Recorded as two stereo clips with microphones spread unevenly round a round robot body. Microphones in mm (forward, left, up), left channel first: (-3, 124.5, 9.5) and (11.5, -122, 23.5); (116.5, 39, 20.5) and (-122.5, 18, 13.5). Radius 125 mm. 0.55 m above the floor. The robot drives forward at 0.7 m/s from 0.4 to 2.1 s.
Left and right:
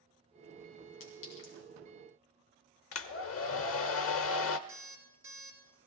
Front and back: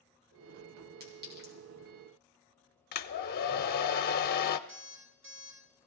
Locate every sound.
1.0 s a clink: 135° left, 3 m; by 1.5 s 140° left, 3.5 m
2.9 s a hair dryer: 60° left, 0.8 m
4.7 s an alarm clock: 165° right, 3.5 m